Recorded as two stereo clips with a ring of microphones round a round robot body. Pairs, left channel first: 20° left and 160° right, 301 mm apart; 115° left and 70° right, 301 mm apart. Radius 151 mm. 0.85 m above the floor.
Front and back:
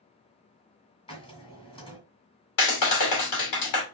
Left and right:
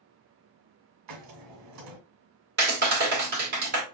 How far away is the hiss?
About 1.8 m.